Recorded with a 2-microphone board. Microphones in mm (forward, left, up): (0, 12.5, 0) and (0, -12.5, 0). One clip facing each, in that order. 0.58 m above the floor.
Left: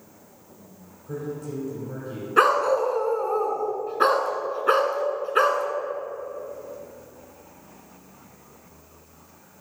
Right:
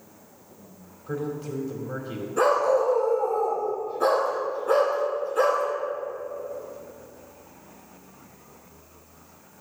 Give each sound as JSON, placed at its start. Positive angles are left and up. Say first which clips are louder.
{"t": 1.1, "sound": "a man speaking", "louder": "right 2 dB", "side_deg": -40, "distance_m": 2.0}
{"t": 2.4, "sound": "a dog barking", "louder": "left 2 dB", "side_deg": 55, "distance_m": 1.5}